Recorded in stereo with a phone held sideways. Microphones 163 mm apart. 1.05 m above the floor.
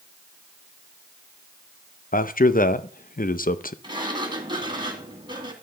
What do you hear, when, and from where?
2.1 s a man speaking: 60° left (ahead or behind), 0.7 m
3.8 s a sliding door: 30° right (ahead or behind), 2 m